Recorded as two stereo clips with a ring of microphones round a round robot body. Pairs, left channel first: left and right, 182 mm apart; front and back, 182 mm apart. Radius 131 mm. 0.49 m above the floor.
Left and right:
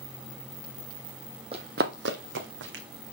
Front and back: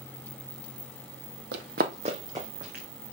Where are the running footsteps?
155° right, 0.8 m; by 2.8 s 95° right, 1.8 m.